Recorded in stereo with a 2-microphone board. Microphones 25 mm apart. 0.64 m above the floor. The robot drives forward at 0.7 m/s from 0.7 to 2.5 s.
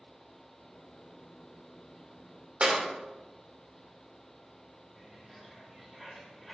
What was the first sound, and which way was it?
A clap, 40° right (ahead or behind).